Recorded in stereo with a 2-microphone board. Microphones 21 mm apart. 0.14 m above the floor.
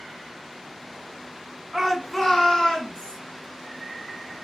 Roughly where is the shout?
Centre.